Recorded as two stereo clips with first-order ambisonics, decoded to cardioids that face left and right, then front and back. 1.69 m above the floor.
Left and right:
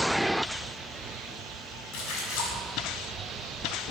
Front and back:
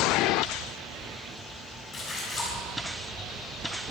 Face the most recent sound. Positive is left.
turn(degrees=85)